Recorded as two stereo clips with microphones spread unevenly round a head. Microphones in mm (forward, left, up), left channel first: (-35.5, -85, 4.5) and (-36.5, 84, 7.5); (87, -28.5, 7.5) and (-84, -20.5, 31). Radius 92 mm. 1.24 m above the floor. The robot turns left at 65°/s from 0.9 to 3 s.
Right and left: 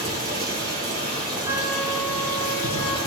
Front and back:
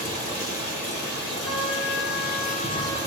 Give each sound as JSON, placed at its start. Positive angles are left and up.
{"t": 0.0, "sound": "running water", "azimuth_deg": 55, "distance_m": 2.5}
{"t": 1.4, "sound": "a trumpet", "azimuth_deg": 25, "distance_m": 2.0}